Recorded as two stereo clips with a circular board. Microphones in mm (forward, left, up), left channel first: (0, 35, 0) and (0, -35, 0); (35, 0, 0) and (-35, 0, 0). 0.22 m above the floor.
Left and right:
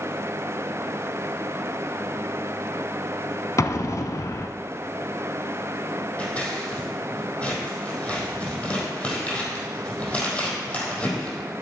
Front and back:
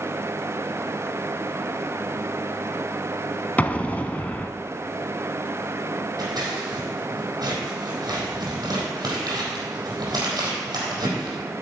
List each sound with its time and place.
3.6 s an explosion: 65° left, 0.7 m
6.2 s scissors: 160° left, 4 m